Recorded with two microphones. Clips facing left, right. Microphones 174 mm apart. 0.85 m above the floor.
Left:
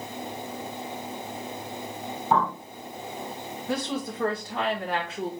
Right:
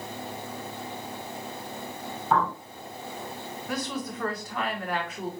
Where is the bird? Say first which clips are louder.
Left 1 dB; 15° left (ahead or behind), 2 m.